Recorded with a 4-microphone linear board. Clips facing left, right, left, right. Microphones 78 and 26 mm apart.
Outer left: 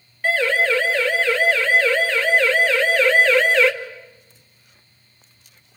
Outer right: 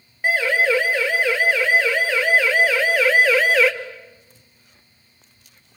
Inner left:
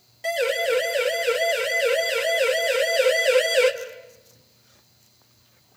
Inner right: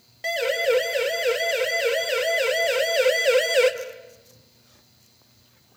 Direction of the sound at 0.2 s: 15° right (ahead or behind).